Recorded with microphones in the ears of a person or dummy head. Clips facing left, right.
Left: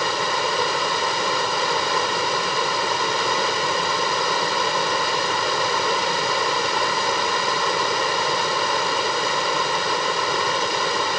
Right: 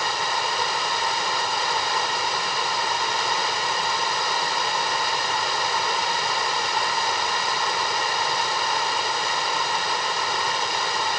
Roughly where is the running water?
Left.